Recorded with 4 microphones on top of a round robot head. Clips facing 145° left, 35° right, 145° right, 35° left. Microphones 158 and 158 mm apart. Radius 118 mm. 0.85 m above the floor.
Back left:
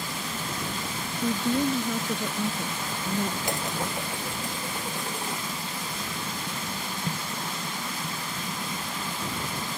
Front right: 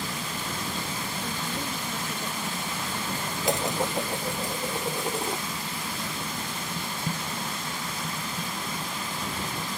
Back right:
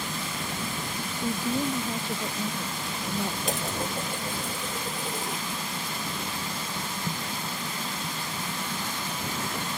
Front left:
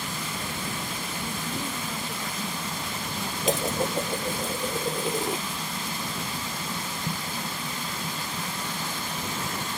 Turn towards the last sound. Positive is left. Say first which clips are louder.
# front right 4 dB, front left 5 dB
turn(degrees=40)